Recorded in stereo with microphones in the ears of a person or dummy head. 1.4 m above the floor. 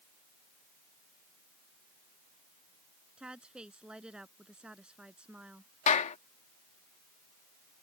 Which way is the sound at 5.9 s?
45° left (ahead or behind).